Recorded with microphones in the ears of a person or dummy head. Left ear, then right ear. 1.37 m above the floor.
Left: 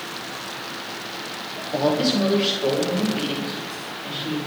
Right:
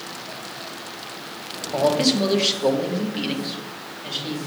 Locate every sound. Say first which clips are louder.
1.7 s a man speaking: right 2 dB; 5° right (ahead or behind), 0.9 m; by 4.4 s 40° right (ahead or behind), 2 m